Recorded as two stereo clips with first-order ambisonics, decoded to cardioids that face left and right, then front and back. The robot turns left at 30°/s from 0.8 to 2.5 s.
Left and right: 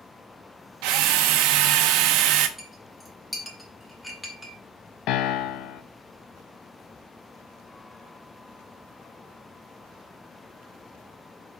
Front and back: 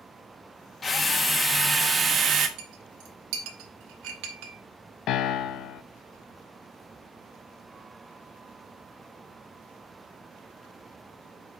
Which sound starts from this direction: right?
A drill, at 0.8 s.